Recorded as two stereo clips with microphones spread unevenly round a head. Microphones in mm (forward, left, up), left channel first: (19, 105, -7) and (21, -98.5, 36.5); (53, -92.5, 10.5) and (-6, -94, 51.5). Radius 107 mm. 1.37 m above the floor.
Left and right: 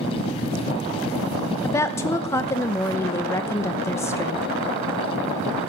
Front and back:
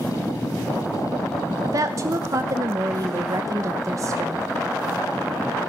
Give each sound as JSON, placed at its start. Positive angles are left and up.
{"t": 1.6, "sound": "a woman speaking", "azimuth_deg": 170, "distance_m": 0.9}